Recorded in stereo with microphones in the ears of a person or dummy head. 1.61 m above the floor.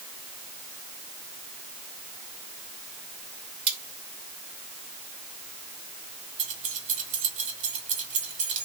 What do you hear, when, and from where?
3.7 s cutlery clinking: 30° right (ahead or behind), 1.5 m
6.4 s keys jangling: 35° right (ahead or behind), 1.6 m